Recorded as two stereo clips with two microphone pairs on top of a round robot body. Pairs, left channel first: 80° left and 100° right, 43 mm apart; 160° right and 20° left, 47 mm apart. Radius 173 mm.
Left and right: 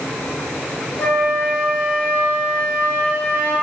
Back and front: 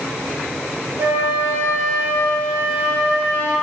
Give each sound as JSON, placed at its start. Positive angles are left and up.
{"t": 1.0, "sound": "a flute", "azimuth_deg": 40, "distance_m": 3.0}